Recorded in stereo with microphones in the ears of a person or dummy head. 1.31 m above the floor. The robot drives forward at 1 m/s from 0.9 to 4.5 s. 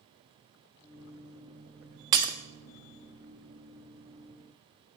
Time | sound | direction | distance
2.1 | breaking glass | 20° right (ahead or behind) | 0.5 m